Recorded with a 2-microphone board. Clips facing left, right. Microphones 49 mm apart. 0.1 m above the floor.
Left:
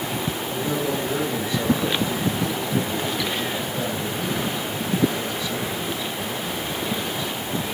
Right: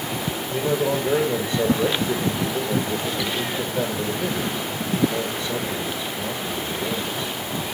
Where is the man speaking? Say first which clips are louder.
Right 5 dB; 40° right (ahead or behind), 1.5 m.